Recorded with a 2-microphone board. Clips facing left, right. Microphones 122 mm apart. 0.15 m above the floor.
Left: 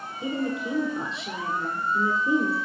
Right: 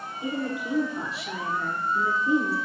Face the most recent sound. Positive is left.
turn(degrees=25)  # may be behind; listen again after turning